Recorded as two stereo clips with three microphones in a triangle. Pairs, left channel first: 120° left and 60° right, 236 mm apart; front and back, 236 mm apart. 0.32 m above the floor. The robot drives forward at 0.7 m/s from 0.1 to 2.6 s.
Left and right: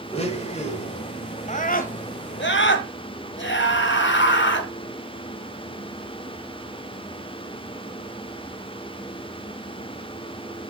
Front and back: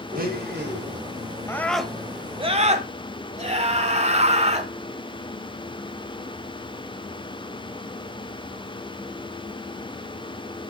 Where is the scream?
75° left, 1.2 m; by 4.7 s 125° left, 1.3 m.